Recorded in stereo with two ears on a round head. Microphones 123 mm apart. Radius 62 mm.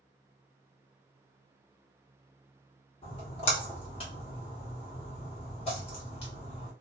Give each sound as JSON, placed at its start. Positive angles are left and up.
{"t": 3.0, "sound": "a splash", "side_deg": 45, "distance_m": 1.2}